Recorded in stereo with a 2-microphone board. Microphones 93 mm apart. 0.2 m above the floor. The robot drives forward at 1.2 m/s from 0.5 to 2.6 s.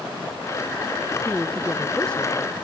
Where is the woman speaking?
10° left (ahead or behind).